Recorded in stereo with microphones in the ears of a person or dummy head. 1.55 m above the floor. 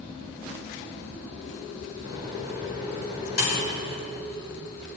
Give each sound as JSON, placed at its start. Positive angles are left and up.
{"t": 2.0, "sound": "a microwave", "side_deg": 75, "distance_m": 5.5}